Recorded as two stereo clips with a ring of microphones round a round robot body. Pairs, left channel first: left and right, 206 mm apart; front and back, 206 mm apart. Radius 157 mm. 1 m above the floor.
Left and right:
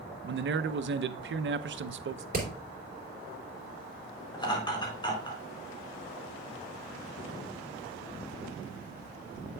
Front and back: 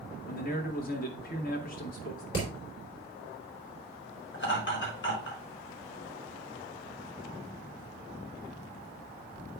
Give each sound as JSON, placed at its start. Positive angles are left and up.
{"t": 0.2, "sound": "a man speaking", "azimuth_deg": -55, "distance_m": 0.6}
{"t": 2.3, "sound": "hammering", "azimuth_deg": -45, "distance_m": 3.5}
{"t": 4.3, "sound": "laughter", "azimuth_deg": 25, "distance_m": 4.0}